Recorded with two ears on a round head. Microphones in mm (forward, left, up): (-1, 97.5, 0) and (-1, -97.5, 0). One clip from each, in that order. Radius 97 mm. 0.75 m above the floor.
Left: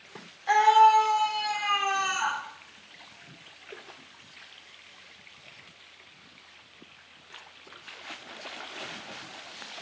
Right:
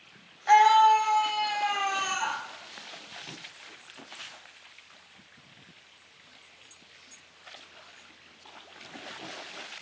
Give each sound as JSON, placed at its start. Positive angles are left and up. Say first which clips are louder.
{"t": 0.5, "sound": "a scream", "louder": "even", "side_deg": -20, "distance_m": 0.7}